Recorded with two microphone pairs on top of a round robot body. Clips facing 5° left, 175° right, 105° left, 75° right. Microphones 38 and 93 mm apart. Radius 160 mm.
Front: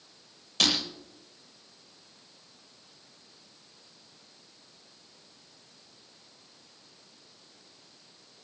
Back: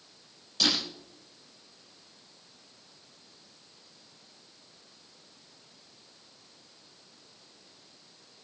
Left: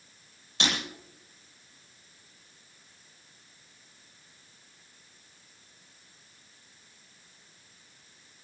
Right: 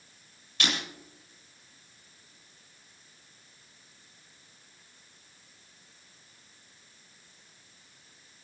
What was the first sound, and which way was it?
Breaking glass, 40° left.